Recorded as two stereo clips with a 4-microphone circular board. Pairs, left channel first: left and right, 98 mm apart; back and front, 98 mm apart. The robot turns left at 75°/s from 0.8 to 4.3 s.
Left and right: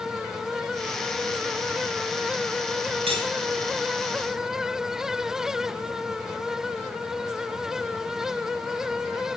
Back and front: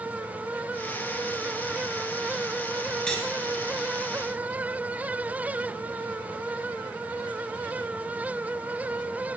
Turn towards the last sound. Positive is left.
turn(degrees=165)